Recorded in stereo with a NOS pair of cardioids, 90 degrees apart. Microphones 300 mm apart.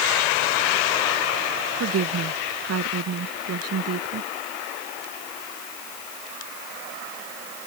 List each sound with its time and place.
1.8 s a woman speaking: 55° right